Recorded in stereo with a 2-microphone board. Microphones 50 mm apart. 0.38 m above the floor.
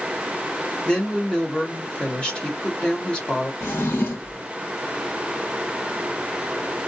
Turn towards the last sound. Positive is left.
turn(degrees=65)  # may be behind; listen again after turning